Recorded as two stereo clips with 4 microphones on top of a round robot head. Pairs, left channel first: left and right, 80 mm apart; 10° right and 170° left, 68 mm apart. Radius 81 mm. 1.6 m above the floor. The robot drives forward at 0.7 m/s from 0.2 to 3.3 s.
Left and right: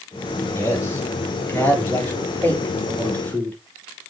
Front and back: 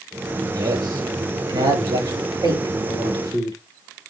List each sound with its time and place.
0.5 s a man speaking: 150° left, 3.5 m; by 3.6 s 160° left, 5 m